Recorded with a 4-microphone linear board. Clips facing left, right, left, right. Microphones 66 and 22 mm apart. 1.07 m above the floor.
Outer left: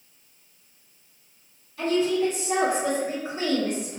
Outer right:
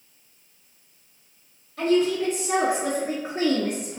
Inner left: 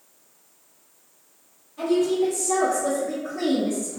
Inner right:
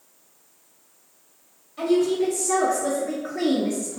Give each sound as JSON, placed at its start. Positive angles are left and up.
{"t": 1.8, "sound": "a woman speaking", "side_deg": -65, "distance_m": 1.2}